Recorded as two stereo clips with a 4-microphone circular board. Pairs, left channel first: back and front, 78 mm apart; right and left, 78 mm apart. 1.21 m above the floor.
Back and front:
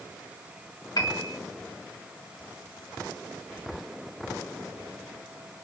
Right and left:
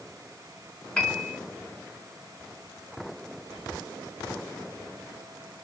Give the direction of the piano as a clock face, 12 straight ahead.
6 o'clock.